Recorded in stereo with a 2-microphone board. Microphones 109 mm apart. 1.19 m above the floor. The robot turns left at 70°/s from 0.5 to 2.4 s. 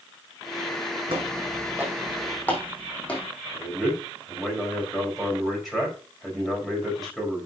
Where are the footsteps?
65° right (ahead or behind), 4.5 m; by 3.3 s 10° left (ahead or behind), 3.5 m.